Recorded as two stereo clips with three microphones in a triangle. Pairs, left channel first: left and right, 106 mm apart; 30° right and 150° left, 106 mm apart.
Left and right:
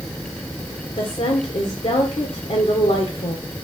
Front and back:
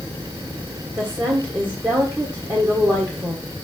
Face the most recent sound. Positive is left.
turn(degrees=90)